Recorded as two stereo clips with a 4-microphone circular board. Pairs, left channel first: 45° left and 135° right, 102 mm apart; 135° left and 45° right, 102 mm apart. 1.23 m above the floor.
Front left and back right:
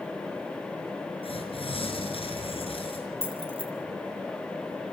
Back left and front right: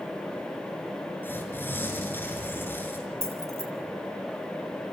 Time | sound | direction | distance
1.2 | tearing paper | 65° left | 5.5 m
3.2 | keys jangling | 105° right | 3.5 m